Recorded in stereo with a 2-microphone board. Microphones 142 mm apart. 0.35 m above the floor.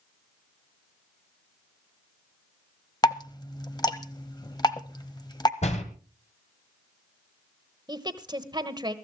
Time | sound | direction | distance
3.0 | dripping | 30° left (ahead or behind) | 0.9 m
5.6 | a door slam | 55° left (ahead or behind) | 1.9 m
7.9 | a woman speaking | 30° right (ahead or behind) | 1.3 m